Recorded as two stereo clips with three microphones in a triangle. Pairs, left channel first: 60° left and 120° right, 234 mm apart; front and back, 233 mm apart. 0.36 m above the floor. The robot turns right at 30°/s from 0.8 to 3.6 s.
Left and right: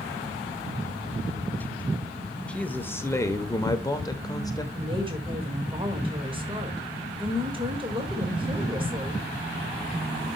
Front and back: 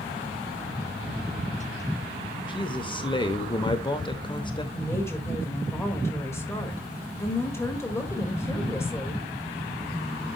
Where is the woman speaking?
70° right, 1.5 m.